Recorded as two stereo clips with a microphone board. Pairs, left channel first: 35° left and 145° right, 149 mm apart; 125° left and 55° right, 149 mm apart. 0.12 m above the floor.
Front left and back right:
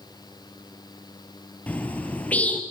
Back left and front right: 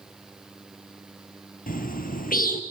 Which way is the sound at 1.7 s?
115° left.